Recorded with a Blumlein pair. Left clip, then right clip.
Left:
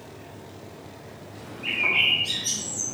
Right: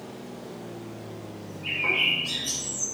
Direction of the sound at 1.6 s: 65° left.